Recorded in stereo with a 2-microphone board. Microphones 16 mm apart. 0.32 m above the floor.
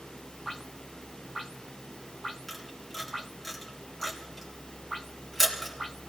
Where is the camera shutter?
5° right (ahead or behind), 3.5 m.